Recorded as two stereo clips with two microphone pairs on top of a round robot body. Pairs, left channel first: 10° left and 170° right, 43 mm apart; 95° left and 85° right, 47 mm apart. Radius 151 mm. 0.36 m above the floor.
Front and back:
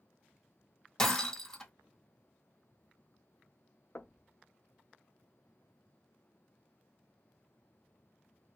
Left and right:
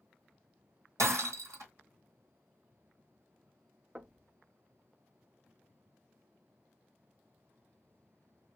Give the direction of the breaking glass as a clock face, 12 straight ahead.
2 o'clock.